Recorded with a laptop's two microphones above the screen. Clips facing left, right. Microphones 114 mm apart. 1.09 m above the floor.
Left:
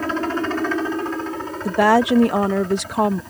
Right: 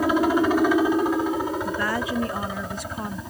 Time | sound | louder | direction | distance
0.0 | a helicopter | right 3 dB | 10° right (ahead or behind) | ?
1.6 | a woman speaking | left 11 dB | 80° left | ?